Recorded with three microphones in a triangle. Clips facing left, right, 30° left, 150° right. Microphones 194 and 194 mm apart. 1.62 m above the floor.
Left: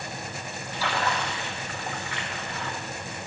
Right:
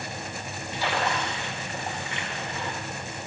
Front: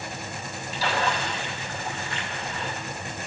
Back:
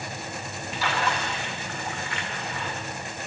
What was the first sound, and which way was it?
A splash, 25° right.